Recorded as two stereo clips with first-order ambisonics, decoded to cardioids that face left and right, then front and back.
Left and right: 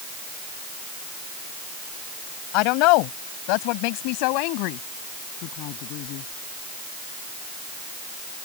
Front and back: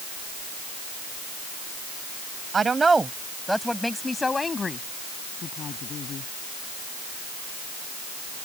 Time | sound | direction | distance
2.5 | a woman speaking | 110° left | ?